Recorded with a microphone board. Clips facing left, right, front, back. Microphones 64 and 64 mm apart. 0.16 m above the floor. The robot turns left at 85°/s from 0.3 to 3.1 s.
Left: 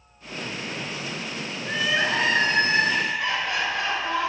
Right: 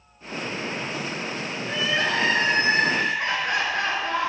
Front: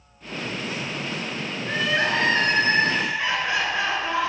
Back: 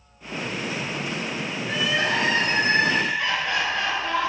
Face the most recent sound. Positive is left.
turn(degrees=-65)